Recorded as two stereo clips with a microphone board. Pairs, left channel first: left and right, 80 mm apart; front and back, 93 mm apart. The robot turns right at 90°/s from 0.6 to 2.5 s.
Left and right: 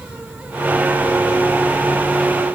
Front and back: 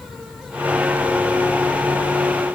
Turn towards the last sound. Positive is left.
No sound to turn to.